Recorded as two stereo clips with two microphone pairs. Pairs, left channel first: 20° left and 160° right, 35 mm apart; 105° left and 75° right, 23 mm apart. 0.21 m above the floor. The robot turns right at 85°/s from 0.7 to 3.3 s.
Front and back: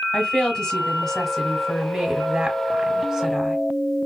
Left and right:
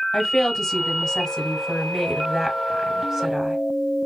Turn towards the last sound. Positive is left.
turn(degrees=-95)